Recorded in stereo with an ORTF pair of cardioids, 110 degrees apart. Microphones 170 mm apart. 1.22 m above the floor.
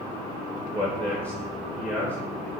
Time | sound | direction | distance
0.7 | a man speaking | 15° right | 0.8 m